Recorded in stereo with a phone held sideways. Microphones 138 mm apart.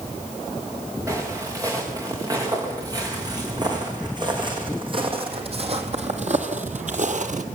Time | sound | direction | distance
1.1 | footsteps | 25° right (ahead or behind) | 9 m